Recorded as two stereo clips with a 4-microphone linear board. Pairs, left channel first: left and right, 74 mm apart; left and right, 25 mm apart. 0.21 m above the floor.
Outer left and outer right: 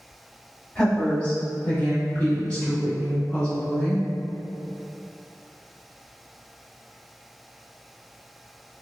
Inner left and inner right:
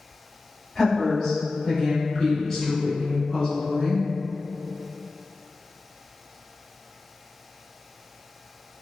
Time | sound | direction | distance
0.8 | a woman speaking | 15° left (ahead or behind) | 1.4 m